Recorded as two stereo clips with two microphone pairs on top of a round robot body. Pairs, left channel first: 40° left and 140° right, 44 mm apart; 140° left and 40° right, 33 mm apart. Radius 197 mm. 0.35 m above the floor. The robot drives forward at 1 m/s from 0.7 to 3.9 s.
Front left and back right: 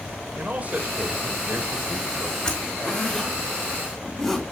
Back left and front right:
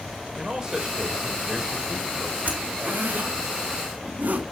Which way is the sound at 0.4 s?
100° right.